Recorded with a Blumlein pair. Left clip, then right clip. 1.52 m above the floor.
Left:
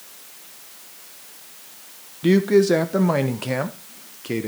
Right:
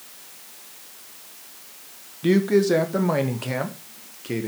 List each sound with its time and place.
2.2 s a man speaking: 5° left, 1.2 m